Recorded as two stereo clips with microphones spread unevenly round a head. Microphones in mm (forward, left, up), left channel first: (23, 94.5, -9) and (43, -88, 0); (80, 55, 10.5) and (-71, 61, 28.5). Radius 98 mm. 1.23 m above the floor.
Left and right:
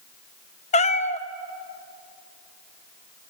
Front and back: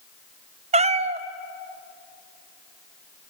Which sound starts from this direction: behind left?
A cat meowing, at 0.7 s.